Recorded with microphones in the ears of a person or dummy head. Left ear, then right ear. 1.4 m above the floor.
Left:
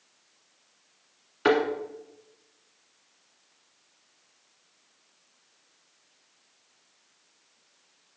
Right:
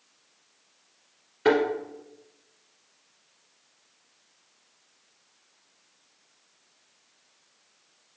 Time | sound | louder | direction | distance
1.4 | a thud | right 1 dB | 30° left (ahead or behind) | 1.6 m